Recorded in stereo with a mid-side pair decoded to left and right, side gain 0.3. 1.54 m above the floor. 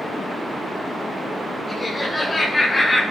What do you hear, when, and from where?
1.7 s laughter: 35° left, 4 m; by 3.0 s 25° left, 5 m